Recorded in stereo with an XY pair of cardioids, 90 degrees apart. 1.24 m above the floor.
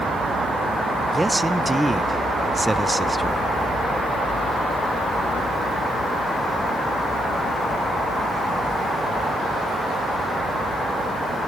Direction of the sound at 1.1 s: 10° right.